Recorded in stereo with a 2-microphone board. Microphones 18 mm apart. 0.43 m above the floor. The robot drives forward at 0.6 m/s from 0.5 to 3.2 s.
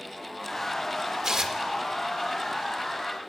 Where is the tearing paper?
25° right (ahead or behind), 1.4 m.